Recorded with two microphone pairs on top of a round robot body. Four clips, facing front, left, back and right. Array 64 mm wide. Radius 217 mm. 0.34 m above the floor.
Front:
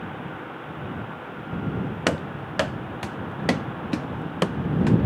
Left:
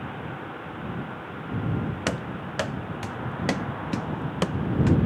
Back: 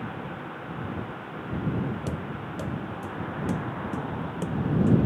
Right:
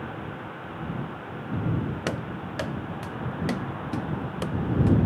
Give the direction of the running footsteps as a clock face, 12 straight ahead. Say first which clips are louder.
Left 1 dB, front 7 dB; 12 o'clock.